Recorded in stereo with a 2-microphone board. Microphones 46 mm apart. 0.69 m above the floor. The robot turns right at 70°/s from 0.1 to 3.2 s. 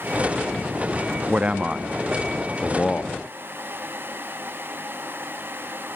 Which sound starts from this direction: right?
A man speaking, at 1.3 s.